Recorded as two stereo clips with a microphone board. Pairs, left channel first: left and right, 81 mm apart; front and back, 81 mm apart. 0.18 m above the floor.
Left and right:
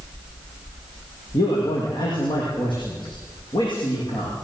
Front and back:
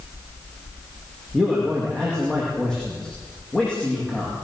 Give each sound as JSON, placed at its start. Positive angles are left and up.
{"t": 1.3, "sound": "a man speaking", "azimuth_deg": 85, "distance_m": 8.5}